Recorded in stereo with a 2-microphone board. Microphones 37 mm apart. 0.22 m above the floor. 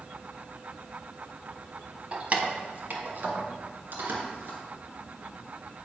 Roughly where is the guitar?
I don't hear a guitar.